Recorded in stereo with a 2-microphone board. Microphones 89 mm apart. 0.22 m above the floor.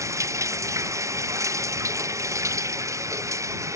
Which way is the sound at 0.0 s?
35° right (ahead or behind).